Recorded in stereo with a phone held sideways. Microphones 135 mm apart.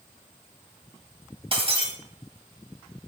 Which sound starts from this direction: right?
Breaking glass, at 1.5 s.